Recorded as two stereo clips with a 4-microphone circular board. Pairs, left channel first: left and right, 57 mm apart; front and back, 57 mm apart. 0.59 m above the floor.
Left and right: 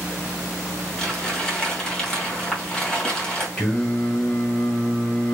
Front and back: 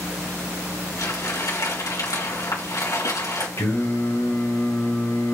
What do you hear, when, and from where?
1.0 s crumpling: 10° left, 2.5 m
3.6 s singing: 10° left, 1.9 m